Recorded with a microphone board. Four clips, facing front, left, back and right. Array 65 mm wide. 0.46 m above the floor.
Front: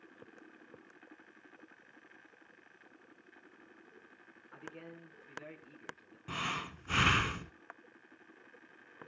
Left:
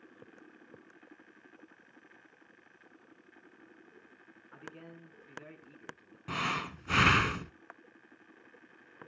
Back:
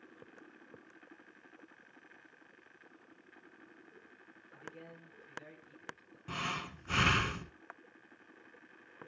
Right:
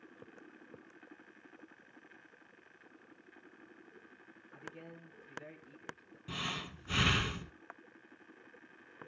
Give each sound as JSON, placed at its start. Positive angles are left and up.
{"t": 4.5, "sound": "a man speaking", "azimuth_deg": 55, "distance_m": 6.0}
{"t": 6.3, "sound": "breathing", "azimuth_deg": 85, "distance_m": 0.7}